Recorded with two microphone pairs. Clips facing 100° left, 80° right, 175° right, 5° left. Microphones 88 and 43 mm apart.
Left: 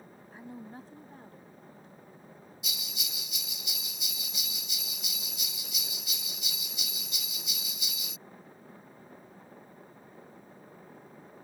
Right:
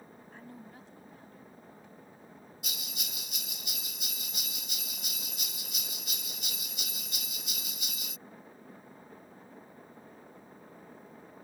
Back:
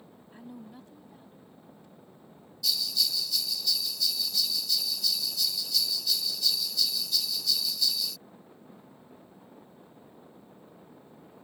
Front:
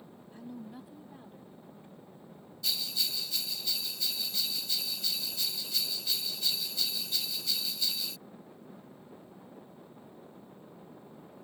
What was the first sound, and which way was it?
A woman speaking, 175° left.